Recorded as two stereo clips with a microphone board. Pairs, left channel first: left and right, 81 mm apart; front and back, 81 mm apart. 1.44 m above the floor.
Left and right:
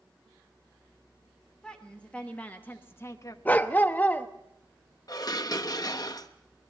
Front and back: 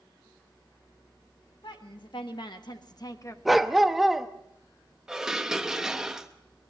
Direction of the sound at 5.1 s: 100° left.